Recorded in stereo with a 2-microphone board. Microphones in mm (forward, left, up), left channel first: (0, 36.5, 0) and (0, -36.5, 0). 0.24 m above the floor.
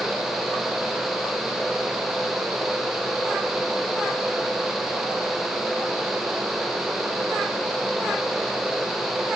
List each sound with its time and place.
Only background noise.